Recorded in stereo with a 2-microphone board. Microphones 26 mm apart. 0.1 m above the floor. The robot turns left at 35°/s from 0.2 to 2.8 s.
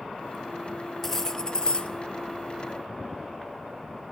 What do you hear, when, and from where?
1.0 s cutlery clinking: 165° left, 1.4 m; by 1.9 s 135° left, 1.4 m